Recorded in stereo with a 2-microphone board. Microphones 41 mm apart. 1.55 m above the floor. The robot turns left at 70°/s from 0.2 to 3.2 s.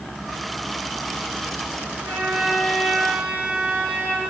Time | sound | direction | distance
2.0 | a violin | 90° right | 3 m